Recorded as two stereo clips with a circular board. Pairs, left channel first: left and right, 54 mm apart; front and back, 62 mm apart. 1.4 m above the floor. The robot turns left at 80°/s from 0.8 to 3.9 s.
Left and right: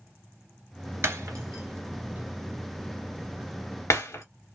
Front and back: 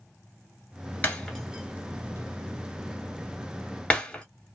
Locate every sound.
1.0 s breaking glass: 60° right, 2.5 m; by 4.2 s 75° left, 2.5 m